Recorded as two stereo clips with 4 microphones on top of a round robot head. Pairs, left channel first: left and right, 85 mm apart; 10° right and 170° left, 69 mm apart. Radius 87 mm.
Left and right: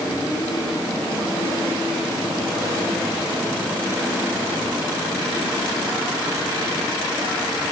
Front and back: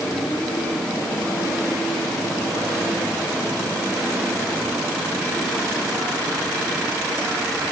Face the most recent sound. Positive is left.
No sound to turn to.